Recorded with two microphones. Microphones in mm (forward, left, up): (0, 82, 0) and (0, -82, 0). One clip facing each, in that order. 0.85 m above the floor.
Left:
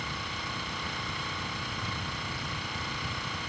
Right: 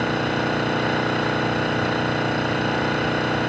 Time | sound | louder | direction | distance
0.0 | an engine running | right 18 dB | 80° right | ?